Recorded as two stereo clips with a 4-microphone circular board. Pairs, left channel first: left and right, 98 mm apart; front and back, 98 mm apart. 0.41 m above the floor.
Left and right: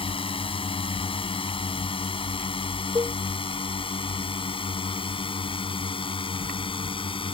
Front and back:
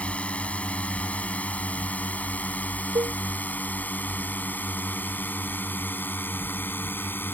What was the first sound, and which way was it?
A drone, 75° left.